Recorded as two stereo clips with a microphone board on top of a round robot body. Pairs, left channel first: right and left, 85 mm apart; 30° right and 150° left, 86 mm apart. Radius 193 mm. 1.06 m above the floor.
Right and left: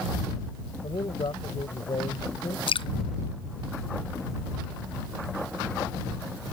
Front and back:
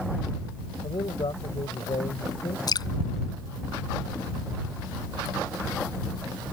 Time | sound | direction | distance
0.8 | a man speaking | 60° right | ?
2.7 | dripping | 70° right | ?